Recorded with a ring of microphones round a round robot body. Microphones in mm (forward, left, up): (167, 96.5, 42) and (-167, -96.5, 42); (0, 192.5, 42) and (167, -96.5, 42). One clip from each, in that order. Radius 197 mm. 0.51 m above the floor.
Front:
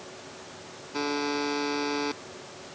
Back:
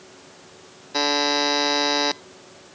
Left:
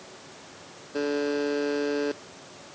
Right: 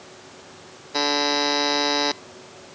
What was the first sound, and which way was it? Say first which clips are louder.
A buzzer: back 9 dB, right 6 dB; 95° right.